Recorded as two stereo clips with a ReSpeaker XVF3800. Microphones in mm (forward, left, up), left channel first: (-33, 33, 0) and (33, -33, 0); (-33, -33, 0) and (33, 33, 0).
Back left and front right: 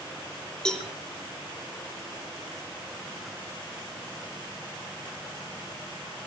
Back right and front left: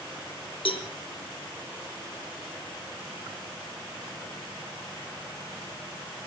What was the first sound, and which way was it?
A cowbell, 140° right.